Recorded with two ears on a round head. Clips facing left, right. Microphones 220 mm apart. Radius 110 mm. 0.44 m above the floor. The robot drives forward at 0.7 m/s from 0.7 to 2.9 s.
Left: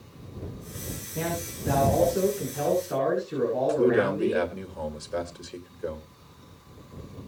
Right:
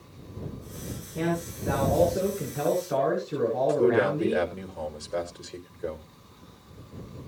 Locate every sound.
1.1 s a man speaking: centre (ahead or behind), 7 m
3.7 s a man speaking: 5° left (ahead or behind), 2 m